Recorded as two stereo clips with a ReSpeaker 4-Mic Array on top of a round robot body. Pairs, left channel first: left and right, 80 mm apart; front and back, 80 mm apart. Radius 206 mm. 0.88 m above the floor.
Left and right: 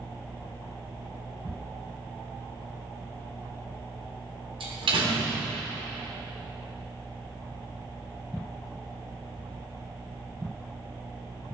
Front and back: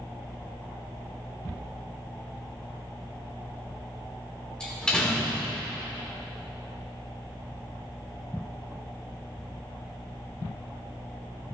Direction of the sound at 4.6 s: 80° right.